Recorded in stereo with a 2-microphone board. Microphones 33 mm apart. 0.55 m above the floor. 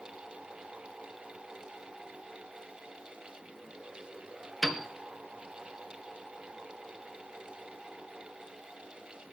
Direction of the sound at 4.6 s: Centre (ahead or behind).